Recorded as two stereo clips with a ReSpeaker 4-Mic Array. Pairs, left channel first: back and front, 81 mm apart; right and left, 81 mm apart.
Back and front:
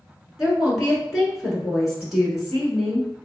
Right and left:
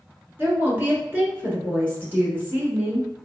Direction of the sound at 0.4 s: 80° left.